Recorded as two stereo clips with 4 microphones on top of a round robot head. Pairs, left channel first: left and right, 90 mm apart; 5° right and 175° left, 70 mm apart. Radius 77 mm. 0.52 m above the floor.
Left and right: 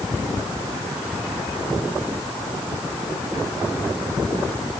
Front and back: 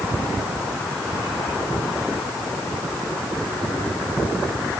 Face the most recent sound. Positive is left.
No sound to turn to.